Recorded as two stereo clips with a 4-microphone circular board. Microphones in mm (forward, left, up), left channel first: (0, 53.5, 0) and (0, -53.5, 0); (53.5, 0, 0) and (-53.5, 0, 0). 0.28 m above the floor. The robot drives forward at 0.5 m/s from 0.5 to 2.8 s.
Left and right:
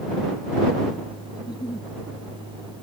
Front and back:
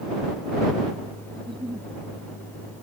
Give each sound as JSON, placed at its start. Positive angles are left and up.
{"t": 1.4, "sound": "a giggle", "azimuth_deg": 135}